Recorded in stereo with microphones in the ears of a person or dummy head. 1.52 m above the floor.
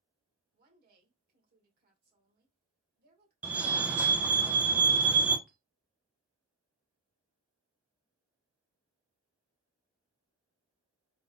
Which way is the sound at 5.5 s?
5° right (ahead or behind).